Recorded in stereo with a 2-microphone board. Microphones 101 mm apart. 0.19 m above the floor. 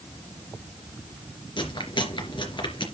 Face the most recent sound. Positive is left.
turn(degrees=55)  # may be behind; listen again after turning